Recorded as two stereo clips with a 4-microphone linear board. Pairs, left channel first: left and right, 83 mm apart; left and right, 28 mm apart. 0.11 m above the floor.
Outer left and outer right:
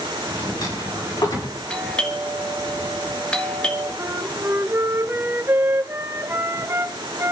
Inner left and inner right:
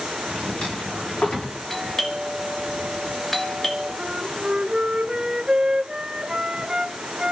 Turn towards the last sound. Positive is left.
turn(degrees=-30)  # may be behind; listen again after turning